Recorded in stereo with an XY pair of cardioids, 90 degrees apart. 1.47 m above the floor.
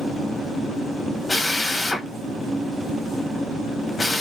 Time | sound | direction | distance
1.3 | a drill | 20° left | 1.5 m